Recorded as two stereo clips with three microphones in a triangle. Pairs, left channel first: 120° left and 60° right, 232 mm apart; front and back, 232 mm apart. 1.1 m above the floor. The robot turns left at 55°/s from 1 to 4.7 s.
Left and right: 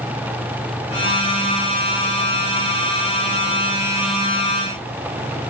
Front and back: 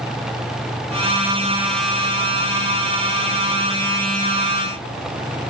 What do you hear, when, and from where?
Only background noise.